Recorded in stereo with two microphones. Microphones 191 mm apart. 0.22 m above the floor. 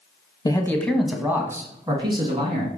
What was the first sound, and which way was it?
A man speaking, 20° left (ahead or behind).